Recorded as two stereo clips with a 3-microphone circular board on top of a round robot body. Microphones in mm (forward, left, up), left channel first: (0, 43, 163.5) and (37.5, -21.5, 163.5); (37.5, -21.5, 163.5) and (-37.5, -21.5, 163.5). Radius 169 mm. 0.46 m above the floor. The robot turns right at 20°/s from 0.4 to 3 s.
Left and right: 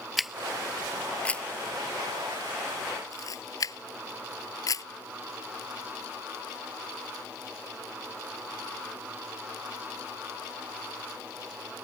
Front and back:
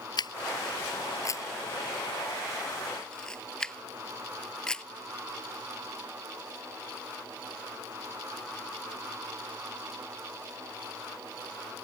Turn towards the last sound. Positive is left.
turn(degrees=80)